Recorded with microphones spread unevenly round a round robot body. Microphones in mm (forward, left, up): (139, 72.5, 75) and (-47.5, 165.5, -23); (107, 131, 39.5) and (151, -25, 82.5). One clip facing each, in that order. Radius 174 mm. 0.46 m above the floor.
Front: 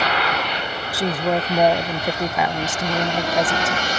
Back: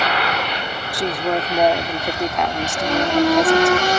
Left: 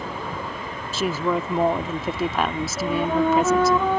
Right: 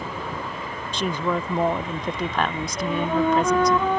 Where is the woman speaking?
140° left.